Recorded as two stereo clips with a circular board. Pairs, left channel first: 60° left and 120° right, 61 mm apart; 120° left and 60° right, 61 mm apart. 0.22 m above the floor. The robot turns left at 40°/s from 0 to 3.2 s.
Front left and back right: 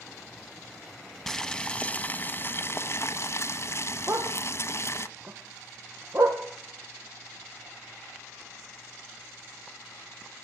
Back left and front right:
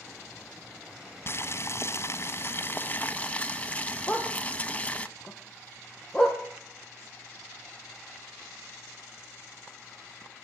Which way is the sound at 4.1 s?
155° right.